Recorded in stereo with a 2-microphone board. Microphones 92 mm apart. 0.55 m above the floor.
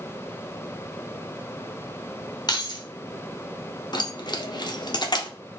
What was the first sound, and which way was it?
Keys jangling, 50° left (ahead or behind).